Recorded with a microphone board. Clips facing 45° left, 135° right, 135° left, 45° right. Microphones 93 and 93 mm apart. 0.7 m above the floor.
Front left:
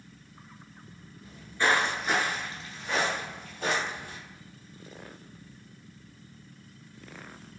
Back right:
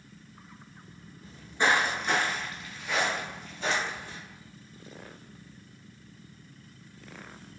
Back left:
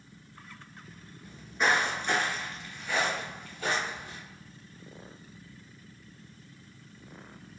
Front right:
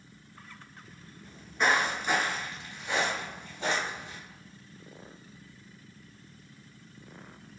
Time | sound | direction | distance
1.2 | footsteps | 150° right | 0.7 m